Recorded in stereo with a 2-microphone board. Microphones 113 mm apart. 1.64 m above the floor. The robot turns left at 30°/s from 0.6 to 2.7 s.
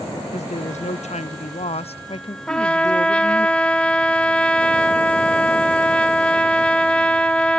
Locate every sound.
0.3 s a woman speaking: 100° left, 0.6 m; by 3.5 s 40° left, 0.6 m
2.5 s a trumpet: 10° left (ahead or behind), 1.0 m